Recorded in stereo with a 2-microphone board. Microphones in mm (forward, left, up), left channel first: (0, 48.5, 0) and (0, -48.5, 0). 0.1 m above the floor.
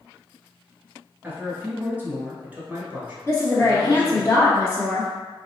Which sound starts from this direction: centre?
A man speaking, at 1.2 s.